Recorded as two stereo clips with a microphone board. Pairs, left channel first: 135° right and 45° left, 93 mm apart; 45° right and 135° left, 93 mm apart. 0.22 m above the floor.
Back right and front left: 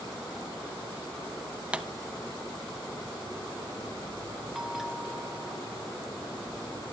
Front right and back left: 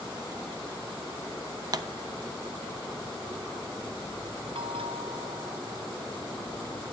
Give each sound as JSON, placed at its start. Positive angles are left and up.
{"t": 1.7, "sound": "a pop", "azimuth_deg": 120, "distance_m": 0.9}
{"t": 4.5, "sound": "a bell", "azimuth_deg": 130, "distance_m": 0.7}